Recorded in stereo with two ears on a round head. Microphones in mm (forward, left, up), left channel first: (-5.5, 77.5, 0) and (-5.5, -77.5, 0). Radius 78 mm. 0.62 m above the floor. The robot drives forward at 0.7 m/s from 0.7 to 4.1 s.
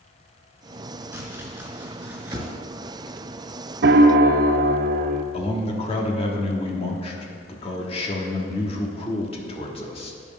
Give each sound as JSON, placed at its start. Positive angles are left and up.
{"t": 1.1, "sound": "chopping", "side_deg": -10, "distance_m": 3.0}
{"t": 3.8, "sound": "a piano", "side_deg": -60, "distance_m": 0.6}
{"t": 5.3, "sound": "a man speaking", "side_deg": 35, "distance_m": 1.3}